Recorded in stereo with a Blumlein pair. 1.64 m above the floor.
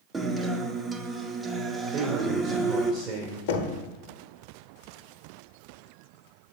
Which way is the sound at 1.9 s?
35° right.